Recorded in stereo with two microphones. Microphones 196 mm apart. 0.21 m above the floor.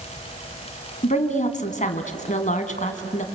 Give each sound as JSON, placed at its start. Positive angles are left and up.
{"t": 1.0, "sound": "a woman speaking", "side_deg": 35, "distance_m": 1.9}